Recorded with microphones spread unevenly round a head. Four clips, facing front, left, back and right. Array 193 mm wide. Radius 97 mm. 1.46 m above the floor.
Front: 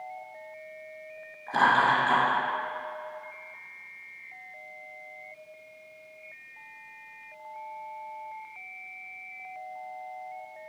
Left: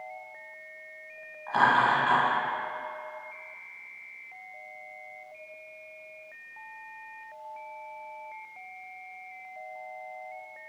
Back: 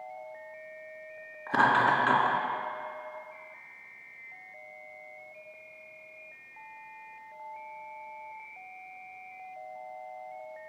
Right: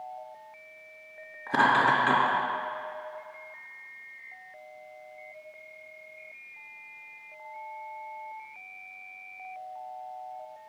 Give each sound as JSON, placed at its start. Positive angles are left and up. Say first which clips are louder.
{"t": 1.5, "sound": "laughter", "louder": "even, front 1 dB", "azimuth_deg": -120, "distance_m": 2.5}